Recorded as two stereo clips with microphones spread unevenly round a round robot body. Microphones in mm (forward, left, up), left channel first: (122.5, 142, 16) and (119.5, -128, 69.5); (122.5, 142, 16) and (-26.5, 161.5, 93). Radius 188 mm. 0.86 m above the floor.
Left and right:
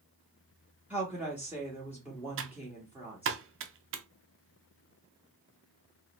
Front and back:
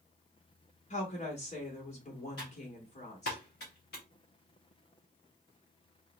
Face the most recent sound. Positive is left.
turn(degrees=-60)